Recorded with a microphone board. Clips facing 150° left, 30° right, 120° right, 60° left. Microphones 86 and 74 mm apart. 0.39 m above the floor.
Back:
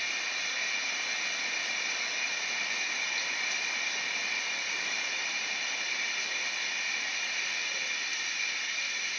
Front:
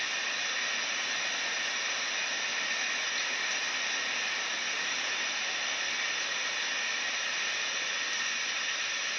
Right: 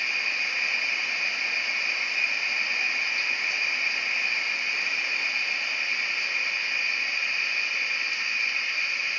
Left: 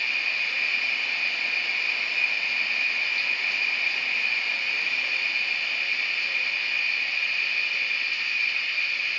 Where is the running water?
50° right, 0.8 m.